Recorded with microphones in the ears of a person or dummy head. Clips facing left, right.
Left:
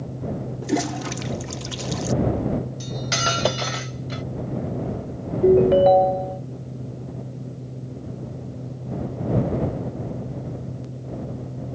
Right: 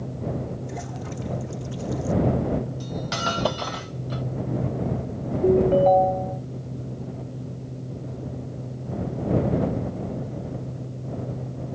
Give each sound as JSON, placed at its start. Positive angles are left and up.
{"t": 0.6, "sound": "a toilet flushing", "side_deg": 85}
{"t": 2.8, "sound": "cutlery clinking", "side_deg": 20}
{"t": 5.4, "sound": "a ringtone", "side_deg": 15}